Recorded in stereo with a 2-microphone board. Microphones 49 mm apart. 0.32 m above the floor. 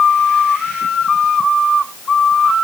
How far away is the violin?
I don't hear a violin.